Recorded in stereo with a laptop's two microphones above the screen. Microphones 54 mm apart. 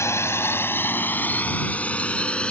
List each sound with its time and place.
0.0 s a drone: 55° left (ahead or behind); by 2.5 s 20° left (ahead or behind)